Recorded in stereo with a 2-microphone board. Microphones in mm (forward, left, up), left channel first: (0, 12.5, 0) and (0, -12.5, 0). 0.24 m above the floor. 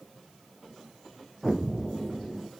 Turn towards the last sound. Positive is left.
turn(degrees=0)  # may be behind; listen again after turning